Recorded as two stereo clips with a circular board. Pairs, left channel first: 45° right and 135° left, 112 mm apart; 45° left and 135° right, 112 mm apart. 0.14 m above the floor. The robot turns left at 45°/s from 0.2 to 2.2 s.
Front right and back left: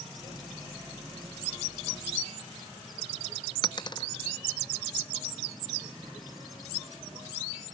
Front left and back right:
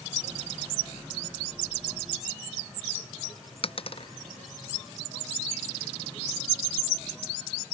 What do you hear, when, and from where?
3.6 s a dropped coin: 5° left